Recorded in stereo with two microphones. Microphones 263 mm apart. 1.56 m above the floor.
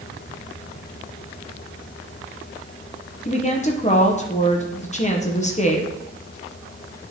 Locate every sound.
3.2 s a woman speaking: 25° left (ahead or behind), 0.8 m